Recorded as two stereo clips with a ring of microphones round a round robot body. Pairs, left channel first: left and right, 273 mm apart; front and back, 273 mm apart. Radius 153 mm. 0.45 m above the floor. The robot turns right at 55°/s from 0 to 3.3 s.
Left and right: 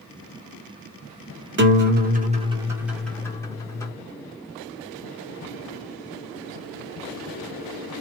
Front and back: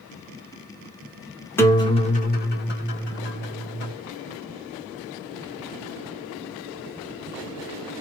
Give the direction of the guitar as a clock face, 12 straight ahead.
3 o'clock.